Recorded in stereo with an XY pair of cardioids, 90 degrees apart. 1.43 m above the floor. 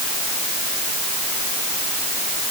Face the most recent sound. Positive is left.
No sound to turn to.